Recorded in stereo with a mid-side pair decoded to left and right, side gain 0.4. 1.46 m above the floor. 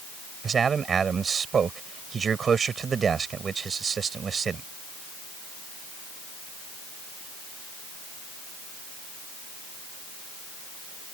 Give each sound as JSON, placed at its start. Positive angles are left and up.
{"t": 0.4, "sound": "a man speaking", "azimuth_deg": -50}